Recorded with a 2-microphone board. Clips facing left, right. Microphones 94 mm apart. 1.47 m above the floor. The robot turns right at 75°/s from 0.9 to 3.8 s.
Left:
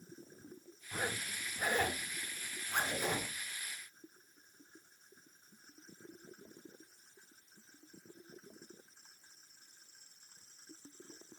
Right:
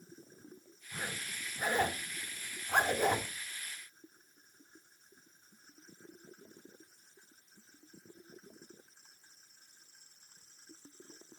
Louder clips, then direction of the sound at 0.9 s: Left 3 dB; 45° left (ahead or behind).